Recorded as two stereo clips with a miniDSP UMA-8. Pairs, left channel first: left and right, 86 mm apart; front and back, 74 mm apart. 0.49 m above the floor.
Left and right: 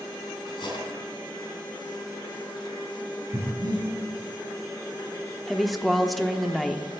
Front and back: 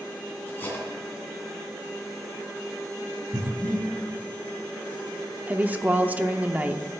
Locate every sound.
0.5 s cutlery clinking: 65° left, 2.5 m
3.3 s breathing: 130° right, 5.5 m
5.5 s a woman speaking: straight behind, 0.7 m